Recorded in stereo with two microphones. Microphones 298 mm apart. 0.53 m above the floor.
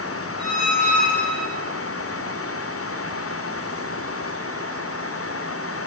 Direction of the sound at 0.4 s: Centre (ahead or behind).